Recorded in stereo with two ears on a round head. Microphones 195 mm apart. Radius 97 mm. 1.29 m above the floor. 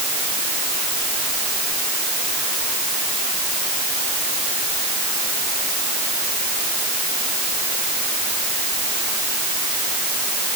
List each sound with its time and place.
Only background noise.